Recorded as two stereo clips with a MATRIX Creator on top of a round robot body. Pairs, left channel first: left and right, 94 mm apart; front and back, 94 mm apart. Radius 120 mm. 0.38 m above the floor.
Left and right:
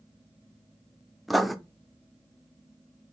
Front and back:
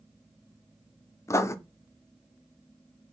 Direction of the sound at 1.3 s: Straight ahead.